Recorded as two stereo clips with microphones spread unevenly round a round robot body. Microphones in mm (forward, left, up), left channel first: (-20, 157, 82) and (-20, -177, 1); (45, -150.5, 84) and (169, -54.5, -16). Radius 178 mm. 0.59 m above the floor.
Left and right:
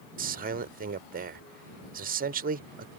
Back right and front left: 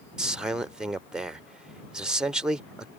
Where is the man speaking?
35° right.